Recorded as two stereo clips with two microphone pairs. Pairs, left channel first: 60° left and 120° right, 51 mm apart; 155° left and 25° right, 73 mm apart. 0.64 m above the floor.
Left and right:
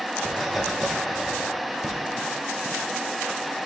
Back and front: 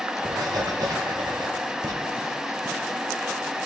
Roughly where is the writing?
Ahead right.